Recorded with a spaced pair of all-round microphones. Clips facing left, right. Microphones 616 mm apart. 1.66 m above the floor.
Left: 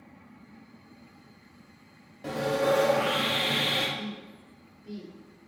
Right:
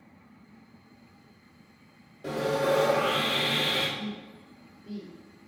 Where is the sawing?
25° left (ahead or behind), 0.6 m.